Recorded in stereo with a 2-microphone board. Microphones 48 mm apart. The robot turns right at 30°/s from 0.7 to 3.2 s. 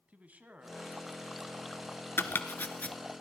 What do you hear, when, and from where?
0.1 s a man speaking: 50° right, 1.6 m; by 2.1 s 5° right, 1.6 m
2.2 s chopping: 55° left (ahead or behind), 1.1 m; by 3.0 s 30° left (ahead or behind), 1.1 m